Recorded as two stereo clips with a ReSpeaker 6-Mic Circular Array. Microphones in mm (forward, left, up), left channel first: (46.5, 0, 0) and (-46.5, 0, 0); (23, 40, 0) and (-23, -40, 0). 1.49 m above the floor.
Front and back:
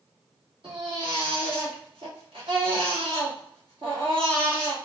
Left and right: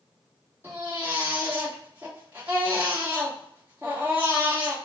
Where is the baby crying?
175° left, 1.7 m.